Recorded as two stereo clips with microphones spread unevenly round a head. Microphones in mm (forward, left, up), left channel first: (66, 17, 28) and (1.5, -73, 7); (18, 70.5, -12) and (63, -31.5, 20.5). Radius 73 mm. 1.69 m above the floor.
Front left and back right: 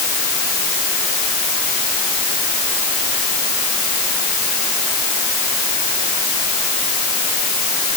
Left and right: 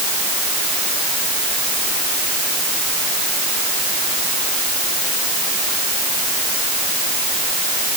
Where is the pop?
No pop in this recording.